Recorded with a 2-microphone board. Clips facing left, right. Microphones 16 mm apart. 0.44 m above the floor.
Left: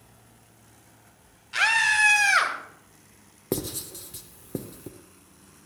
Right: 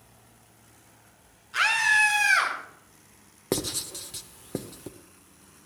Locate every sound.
1.5 s a scream: 55° left (ahead or behind), 3.5 m
3.5 s writing: 25° right (ahead or behind), 0.6 m